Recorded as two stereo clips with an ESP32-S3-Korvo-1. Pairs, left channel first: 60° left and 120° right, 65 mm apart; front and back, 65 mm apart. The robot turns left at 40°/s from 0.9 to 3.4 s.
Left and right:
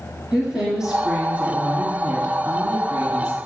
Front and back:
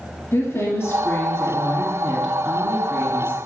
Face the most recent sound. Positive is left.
turn(degrees=-140)